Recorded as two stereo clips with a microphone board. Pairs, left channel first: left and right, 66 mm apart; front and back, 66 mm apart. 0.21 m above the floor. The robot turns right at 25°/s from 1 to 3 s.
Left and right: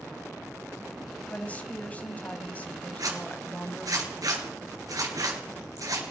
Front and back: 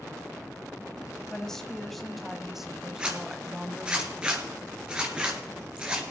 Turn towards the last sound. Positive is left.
turn(degrees=-105)